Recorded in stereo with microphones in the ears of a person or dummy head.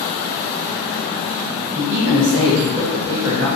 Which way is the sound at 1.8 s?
70° right (ahead or behind).